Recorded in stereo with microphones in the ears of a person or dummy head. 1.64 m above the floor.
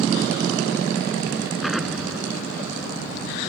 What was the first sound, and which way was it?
An explosion, 5° left (ahead or behind).